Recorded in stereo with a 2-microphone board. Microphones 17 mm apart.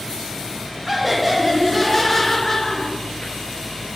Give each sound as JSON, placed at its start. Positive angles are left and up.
{"t": 0.9, "sound": "laughter", "side_deg": -25, "distance_m": 2.0}